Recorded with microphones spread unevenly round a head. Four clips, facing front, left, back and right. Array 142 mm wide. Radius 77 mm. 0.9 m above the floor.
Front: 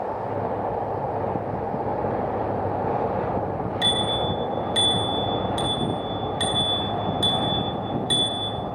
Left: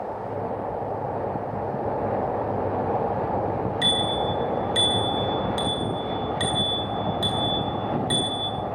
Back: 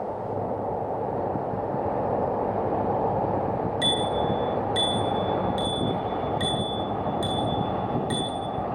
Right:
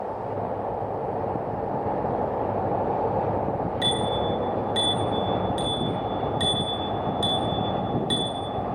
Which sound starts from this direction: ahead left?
A bicycle bell, at 3.8 s.